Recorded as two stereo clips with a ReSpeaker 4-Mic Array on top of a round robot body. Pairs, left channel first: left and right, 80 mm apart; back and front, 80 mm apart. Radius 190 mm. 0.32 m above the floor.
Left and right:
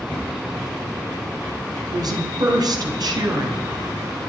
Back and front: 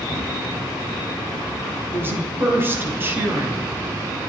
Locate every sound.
0.1 s a cupboard door: 25° left, 6 m
1.9 s a woman speaking: 60° right, 3.5 m